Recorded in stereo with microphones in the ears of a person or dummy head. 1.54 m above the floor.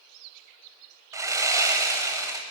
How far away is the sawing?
About 0.5 m.